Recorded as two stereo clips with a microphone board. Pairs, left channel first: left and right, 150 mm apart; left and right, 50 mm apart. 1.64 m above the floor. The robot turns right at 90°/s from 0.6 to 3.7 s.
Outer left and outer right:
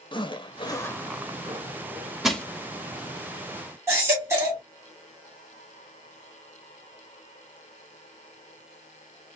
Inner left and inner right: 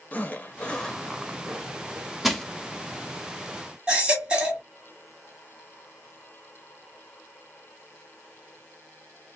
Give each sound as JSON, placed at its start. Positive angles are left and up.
{"t": 0.1, "sound": "a zipper", "azimuth_deg": 135, "distance_m": 0.7}
{"t": 2.2, "sound": "crushing", "side_deg": -5, "distance_m": 0.7}
{"t": 3.9, "sound": "a baby crying", "side_deg": -20, "distance_m": 1.7}